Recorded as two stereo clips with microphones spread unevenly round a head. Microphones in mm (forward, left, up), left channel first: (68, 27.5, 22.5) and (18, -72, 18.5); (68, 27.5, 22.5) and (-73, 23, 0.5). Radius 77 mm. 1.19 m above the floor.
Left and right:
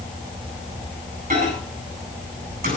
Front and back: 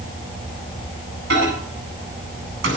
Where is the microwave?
155° right, 8 m.